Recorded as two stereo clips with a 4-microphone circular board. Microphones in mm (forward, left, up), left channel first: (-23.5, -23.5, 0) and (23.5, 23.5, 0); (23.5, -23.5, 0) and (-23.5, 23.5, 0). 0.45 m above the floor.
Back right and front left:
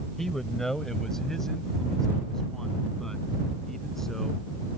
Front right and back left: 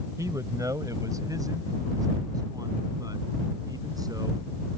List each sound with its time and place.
0.2 s a man speaking: 140° left